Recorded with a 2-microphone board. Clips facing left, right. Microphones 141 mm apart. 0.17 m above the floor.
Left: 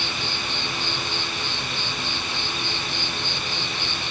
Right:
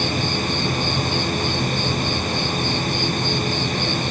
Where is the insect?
55° right (ahead or behind).